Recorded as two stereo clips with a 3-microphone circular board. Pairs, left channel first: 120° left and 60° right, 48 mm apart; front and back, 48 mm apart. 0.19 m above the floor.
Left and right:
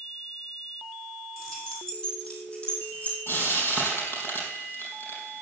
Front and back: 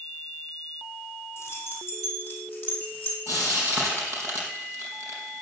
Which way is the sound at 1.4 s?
35° left.